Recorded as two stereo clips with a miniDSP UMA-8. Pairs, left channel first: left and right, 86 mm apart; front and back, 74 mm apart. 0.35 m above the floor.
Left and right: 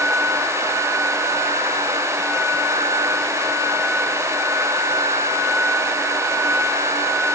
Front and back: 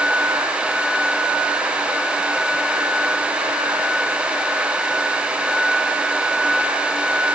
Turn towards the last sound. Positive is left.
No sound to turn to.